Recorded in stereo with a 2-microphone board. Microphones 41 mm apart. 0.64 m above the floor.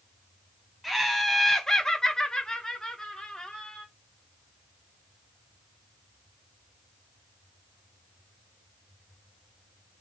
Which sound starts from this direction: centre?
Laughter, at 0.8 s.